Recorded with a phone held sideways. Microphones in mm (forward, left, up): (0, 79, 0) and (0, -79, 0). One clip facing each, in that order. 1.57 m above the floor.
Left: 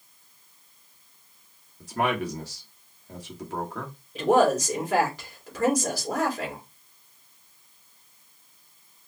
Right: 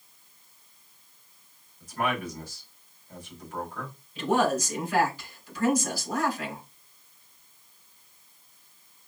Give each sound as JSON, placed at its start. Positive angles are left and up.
{"t": 1.8, "sound": "a man speaking", "side_deg": 80, "distance_m": 1.6}
{"t": 4.2, "sound": "a woman speaking", "side_deg": 90, "distance_m": 3.0}